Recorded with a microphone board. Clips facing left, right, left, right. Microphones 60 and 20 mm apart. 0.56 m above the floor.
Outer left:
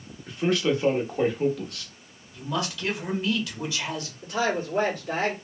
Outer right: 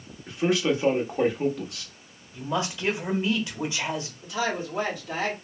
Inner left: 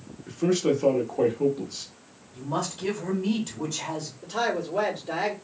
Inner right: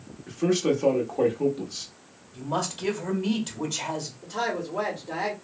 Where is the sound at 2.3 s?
25° right (ahead or behind), 1.3 m.